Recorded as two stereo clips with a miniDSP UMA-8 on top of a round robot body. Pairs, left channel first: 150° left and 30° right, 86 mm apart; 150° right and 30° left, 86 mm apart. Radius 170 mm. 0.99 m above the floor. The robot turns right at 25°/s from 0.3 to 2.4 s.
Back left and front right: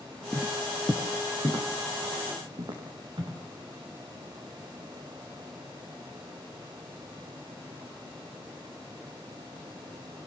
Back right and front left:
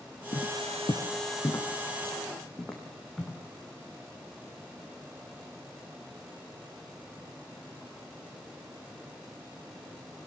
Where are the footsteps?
120° right, 1.5 m; by 3.4 s 65° right, 4.5 m.